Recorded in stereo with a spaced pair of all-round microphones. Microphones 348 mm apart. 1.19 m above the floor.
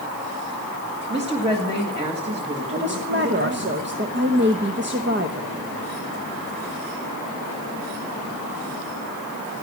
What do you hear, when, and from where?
1.1 s a woman speaking: 15° right (ahead or behind), 1.6 m
2.7 s a woman speaking: 30° right (ahead or behind), 0.9 m